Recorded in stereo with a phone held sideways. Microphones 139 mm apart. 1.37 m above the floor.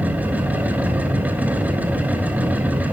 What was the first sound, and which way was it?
A machine running, 10° right (ahead or behind).